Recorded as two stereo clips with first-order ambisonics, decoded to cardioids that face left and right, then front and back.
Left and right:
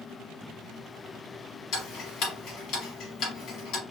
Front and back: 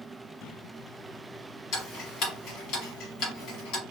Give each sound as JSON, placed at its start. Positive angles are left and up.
{"t": 1.7, "sound": "ticking", "azimuth_deg": 40, "distance_m": 1.1}